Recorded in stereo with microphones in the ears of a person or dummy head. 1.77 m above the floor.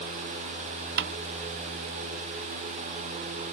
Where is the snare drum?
60° right (ahead or behind).